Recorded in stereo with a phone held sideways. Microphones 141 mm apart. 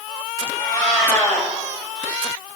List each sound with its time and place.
0.6 s a cat meowing: 20° left (ahead or behind), 1.8 m